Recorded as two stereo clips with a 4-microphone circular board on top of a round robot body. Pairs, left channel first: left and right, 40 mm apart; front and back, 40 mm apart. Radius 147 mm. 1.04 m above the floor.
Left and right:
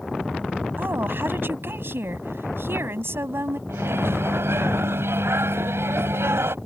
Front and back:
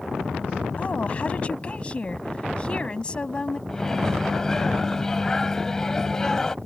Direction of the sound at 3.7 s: 80° right.